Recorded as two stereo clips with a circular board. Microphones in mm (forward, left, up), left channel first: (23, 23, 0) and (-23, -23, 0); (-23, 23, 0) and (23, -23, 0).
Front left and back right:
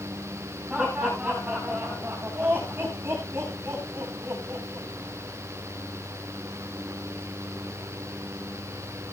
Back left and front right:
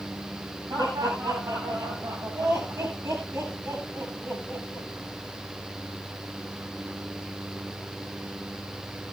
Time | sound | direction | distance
0.7 | laughter | 60° right | 6 m